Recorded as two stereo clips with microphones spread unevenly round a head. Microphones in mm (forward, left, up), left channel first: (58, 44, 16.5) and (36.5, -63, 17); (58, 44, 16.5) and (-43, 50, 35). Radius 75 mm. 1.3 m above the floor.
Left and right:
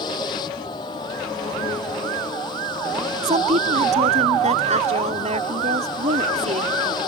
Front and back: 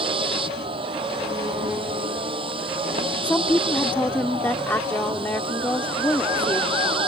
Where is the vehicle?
145° left.